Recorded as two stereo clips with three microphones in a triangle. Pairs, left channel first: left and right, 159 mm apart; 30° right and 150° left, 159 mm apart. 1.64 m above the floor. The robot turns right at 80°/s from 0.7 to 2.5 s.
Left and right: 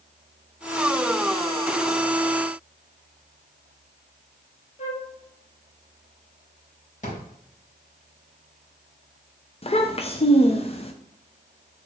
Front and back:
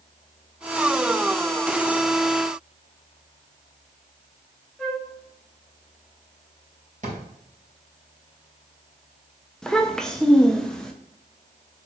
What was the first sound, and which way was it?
A flute, 55° left.